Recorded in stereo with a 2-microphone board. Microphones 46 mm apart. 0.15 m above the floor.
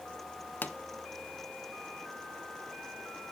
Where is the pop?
45° left (ahead or behind), 0.5 m.